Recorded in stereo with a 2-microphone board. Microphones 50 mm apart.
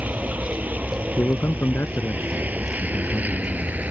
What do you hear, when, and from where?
0.0 s a vehicle: 30° right (ahead or behind)
1.2 s a man speaking: 50° left (ahead or behind)